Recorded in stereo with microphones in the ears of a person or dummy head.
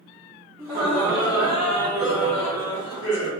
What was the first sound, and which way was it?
Laughter, 10° right (ahead or behind).